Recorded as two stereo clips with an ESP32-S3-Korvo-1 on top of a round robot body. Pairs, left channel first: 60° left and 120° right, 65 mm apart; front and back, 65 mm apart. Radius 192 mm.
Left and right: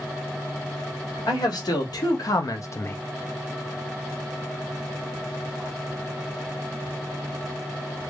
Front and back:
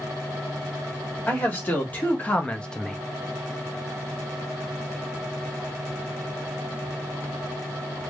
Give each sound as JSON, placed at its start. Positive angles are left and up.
{"t": 1.3, "sound": "a man speaking", "azimuth_deg": 60, "distance_m": 1.8}